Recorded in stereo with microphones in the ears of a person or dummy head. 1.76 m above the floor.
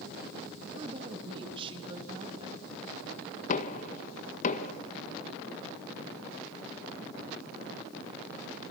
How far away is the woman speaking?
About 3.5 m.